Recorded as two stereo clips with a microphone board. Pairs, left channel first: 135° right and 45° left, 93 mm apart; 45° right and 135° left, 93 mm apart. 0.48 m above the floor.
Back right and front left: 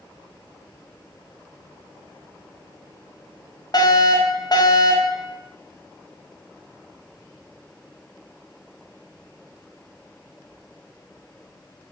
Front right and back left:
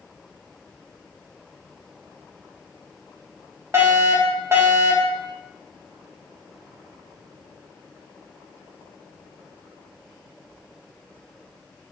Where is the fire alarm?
165° right, 4 m.